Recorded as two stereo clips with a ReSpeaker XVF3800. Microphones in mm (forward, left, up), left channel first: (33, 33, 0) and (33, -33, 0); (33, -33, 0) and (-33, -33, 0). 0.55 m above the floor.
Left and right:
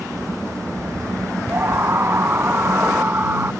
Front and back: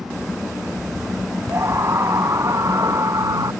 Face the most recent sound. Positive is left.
turn(degrees=-150)